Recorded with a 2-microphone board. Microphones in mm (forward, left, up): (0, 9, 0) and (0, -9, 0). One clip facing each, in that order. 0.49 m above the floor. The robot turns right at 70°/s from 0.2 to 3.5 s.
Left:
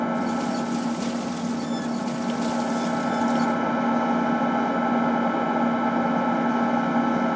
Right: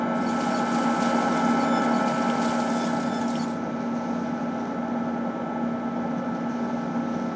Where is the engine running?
Straight behind, 0.7 m; by 7.4 s 50° left, 0.7 m.